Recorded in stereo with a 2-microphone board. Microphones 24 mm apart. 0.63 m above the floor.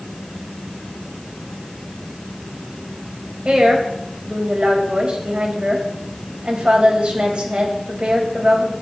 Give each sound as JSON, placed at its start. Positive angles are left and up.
{"t": 3.5, "sound": "a woman speaking", "side_deg": -40, "distance_m": 4.0}